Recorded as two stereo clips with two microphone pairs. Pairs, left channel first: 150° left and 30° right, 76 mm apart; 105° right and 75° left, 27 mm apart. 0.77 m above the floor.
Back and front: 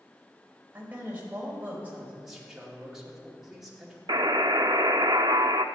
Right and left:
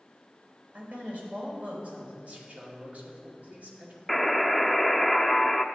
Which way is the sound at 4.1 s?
20° right.